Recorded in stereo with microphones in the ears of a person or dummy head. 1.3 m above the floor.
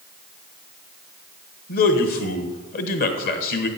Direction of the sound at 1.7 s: 50° left (ahead or behind).